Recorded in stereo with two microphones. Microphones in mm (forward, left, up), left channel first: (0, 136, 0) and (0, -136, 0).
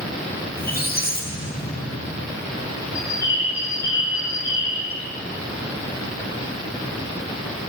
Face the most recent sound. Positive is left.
turn(degrees=-35)  # may be behind; listen again after turning